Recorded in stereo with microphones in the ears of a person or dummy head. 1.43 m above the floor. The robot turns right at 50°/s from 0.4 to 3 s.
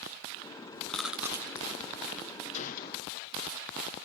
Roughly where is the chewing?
Centre.